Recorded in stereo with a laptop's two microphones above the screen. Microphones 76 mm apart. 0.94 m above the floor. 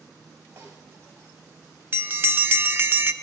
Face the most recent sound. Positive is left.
turn(degrees=-30)  # may be behind; listen again after turning